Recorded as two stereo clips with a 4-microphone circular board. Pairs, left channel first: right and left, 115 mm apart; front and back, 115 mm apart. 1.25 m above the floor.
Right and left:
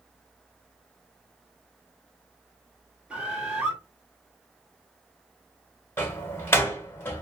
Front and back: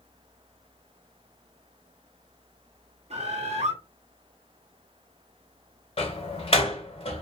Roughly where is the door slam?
Ahead.